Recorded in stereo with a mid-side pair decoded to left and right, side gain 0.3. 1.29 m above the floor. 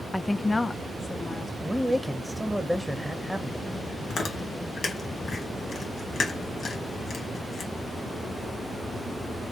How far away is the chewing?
About 1.9 m.